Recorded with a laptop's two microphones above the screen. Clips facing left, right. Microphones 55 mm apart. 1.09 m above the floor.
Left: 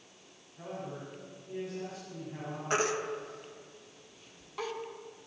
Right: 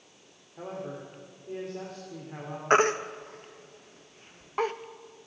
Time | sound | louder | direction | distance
0.6 | a man speaking | right 3 dB | 65° right (ahead or behind) | 3 m
2.7 | a baby crying | right 8 dB | 45° right (ahead or behind) | 0.8 m